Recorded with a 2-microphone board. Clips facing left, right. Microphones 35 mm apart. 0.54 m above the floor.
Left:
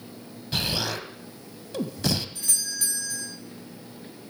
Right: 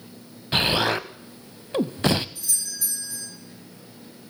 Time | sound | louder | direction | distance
0.5 | an explosion | right 7 dB | 40° right (ahead or behind) | 0.5 m
2.4 | a doorbell | left 2 dB | 55° left (ahead or behind) | 5 m